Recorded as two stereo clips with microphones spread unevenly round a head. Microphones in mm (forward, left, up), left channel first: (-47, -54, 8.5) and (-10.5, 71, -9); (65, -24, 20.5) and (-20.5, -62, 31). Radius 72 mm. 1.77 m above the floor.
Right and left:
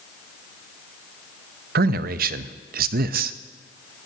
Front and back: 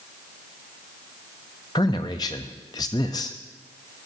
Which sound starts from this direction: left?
A man speaking, at 1.8 s.